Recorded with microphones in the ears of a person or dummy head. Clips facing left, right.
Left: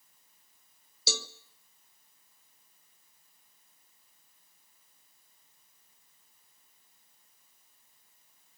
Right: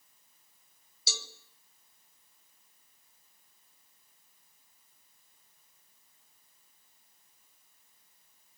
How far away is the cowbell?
About 1.4 m.